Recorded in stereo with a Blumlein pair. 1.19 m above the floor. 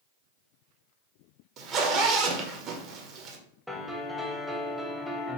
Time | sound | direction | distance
1.6 | a zipper | 35° right | 0.7 m
3.7 | a piano | straight ahead | 0.7 m